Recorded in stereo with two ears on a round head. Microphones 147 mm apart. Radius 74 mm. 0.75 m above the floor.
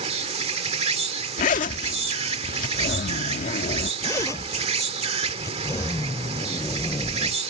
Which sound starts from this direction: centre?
A zipper, at 4.0 s.